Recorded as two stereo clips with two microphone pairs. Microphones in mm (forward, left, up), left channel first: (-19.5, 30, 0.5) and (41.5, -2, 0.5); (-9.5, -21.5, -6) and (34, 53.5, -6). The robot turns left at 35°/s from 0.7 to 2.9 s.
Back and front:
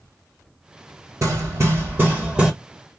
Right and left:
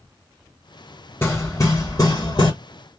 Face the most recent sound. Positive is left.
turn(degrees=-120)